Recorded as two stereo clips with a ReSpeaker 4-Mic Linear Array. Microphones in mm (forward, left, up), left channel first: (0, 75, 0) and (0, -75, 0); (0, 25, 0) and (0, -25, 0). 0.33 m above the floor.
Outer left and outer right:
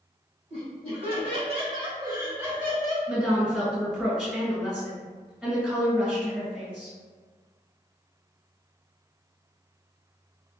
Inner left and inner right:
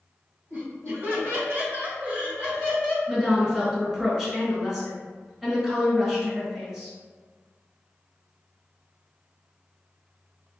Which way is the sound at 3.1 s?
5° right (ahead or behind).